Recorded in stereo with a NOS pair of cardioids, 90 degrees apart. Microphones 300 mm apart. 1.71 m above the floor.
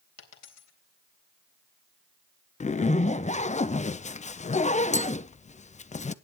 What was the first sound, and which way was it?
A dropped coin, 65° left.